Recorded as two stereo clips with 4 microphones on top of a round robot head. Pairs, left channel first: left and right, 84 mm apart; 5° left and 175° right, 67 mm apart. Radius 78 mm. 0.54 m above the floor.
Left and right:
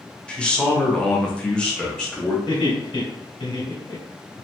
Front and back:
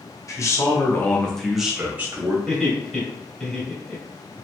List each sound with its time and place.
0.3 s a man speaking: 15° left, 1.0 m; by 2.4 s 170° left, 0.9 m
2.5 s laughter: 95° left, 1.7 m